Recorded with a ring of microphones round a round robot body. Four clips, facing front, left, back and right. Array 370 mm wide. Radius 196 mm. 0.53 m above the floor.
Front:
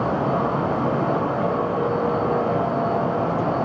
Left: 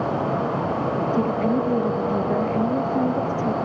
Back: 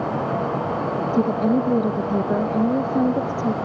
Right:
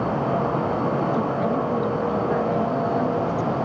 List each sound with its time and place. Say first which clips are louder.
1.1 s a woman speaking: left 1 dB, back 2 dB; 160° left